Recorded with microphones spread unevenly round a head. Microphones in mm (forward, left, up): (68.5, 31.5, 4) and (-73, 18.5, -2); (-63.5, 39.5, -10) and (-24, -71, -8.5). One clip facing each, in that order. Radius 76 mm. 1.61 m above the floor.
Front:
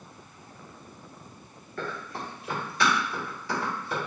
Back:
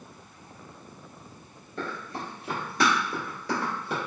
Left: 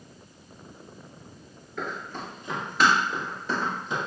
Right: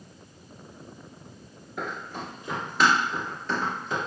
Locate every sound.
1.8 s running footsteps: 120° right, 1.8 m; by 4.0 s 175° left, 2.5 m